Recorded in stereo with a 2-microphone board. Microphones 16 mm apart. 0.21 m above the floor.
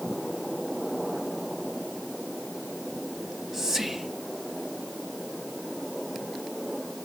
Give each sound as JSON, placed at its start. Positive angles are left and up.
{"t": 3.2, "sound": "whispering", "side_deg": -20, "distance_m": 1.2}